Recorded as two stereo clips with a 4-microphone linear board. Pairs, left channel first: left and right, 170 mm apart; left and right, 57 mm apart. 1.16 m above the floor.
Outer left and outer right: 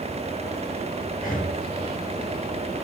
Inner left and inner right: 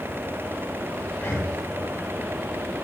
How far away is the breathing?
About 2 m.